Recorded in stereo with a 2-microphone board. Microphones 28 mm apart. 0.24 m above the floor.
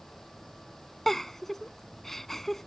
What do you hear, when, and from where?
1.1 s a giggle: 15° left (ahead or behind)